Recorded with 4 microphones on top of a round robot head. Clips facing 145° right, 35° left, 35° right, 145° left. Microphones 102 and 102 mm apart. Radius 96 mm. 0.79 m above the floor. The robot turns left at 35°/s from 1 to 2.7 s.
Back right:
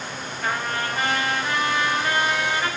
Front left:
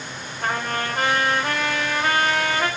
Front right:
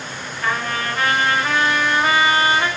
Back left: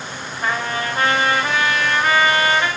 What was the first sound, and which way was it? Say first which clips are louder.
A trumpet: front left 1 dB, even; 80° left.